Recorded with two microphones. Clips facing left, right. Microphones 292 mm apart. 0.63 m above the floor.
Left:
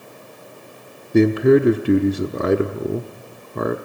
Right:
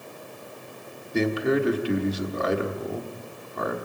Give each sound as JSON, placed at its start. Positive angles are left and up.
{"t": 1.1, "sound": "a man speaking", "side_deg": 60, "distance_m": 1.1}